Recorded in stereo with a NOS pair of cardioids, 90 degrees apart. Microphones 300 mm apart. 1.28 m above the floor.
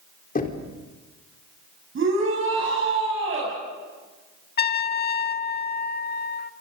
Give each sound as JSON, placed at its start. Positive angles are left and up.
{"t": 0.3, "sound": "knocking", "azimuth_deg": 30, "distance_m": 3.5}
{"t": 1.9, "sound": "a shout", "azimuth_deg": -45, "distance_m": 7.5}
{"t": 4.6, "sound": "a trumpet", "azimuth_deg": 35, "distance_m": 1.6}